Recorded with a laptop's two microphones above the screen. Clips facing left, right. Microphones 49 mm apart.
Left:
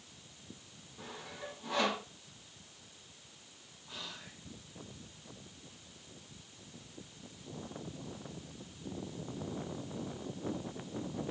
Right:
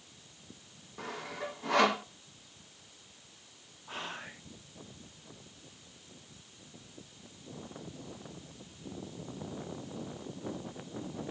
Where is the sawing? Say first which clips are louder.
Right 7 dB; 85° right, 1.3 m.